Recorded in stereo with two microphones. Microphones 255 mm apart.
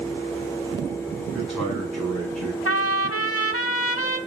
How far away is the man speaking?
About 6 m.